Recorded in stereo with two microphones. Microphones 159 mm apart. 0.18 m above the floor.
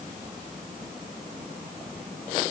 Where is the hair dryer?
I don't hear a hair dryer.